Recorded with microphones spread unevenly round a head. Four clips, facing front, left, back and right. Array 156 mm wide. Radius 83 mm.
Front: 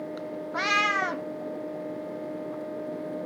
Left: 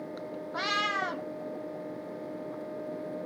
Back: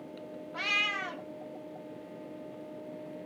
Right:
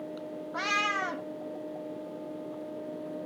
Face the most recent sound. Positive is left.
turn(degrees=-5)